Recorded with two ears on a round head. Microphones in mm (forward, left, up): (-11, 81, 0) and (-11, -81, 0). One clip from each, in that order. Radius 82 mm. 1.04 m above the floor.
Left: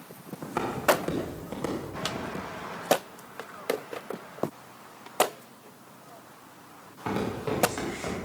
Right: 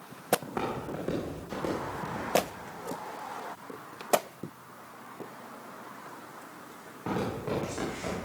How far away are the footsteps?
About 4 m.